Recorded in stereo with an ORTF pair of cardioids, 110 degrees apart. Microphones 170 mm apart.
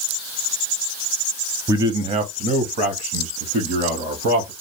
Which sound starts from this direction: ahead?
A man speaking, at 1.7 s.